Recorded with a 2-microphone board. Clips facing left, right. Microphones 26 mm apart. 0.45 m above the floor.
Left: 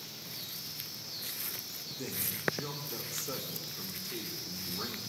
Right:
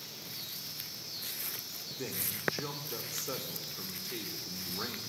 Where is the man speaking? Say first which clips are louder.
Even; 20° right (ahead or behind), 1.3 m.